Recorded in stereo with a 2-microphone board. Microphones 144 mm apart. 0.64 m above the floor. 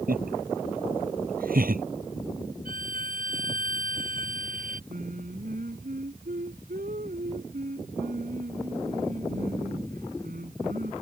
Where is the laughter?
85° right.